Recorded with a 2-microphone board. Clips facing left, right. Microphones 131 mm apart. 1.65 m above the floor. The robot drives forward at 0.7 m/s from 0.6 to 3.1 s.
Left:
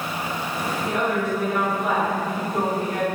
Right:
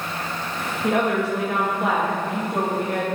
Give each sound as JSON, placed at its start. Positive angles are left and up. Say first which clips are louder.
{"t": 0.8, "sound": "a woman speaking", "louder": "right 4 dB", "side_deg": -70, "distance_m": 1.9}